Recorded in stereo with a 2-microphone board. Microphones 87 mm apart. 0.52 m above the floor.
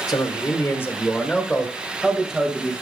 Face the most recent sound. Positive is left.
turn(degrees=-10)  # may be behind; listen again after turning